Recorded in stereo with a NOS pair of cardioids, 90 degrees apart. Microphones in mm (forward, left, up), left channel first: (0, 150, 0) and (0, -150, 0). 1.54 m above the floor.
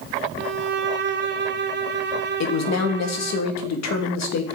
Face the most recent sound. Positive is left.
turn(degrees=65)